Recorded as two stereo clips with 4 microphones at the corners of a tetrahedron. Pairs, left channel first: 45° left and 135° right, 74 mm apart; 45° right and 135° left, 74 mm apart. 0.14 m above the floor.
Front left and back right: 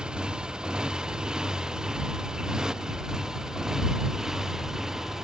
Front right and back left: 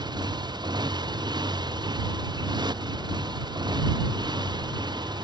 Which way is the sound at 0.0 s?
145° left.